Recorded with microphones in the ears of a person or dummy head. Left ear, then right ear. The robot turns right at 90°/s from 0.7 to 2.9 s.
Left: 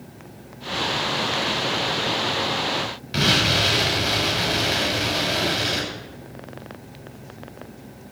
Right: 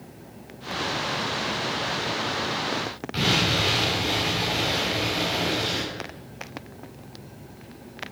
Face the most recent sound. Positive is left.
turn(degrees=5)  # may be behind; listen again after turning